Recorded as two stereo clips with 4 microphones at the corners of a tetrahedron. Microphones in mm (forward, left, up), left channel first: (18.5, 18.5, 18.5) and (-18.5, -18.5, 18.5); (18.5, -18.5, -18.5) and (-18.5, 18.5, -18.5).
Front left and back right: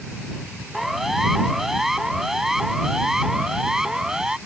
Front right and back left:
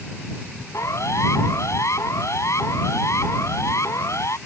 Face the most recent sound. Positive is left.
turn(degrees=-55)